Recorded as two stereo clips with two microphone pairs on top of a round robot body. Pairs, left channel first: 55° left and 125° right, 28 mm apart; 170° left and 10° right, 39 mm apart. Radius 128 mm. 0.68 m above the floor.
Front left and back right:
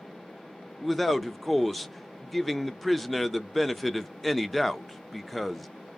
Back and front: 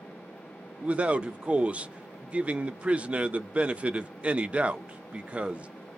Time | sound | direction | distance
0.8 | a man speaking | 25° right | 0.6 m